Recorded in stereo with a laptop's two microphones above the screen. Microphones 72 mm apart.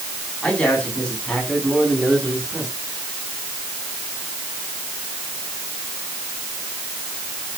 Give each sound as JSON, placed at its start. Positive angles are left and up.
{"t": 0.4, "sound": "a man speaking", "side_deg": 5, "distance_m": 10.0}